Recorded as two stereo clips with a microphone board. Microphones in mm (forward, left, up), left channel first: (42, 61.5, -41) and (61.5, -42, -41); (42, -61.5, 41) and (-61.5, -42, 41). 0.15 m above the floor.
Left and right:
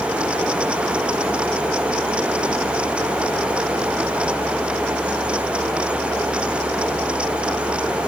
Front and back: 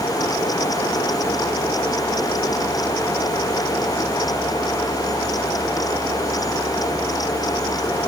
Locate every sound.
Only background noise.